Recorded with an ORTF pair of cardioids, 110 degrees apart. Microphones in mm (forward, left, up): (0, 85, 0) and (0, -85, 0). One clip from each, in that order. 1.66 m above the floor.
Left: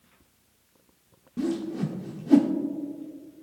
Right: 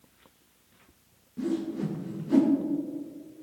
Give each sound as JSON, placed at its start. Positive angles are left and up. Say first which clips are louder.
{"t": 1.4, "sound": "a whoosh", "louder": "left 1 dB", "azimuth_deg": 55, "distance_m": 1.2}